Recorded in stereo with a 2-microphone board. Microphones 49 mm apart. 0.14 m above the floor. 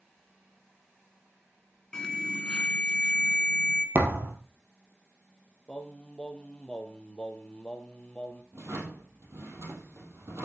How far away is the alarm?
About 1.7 m.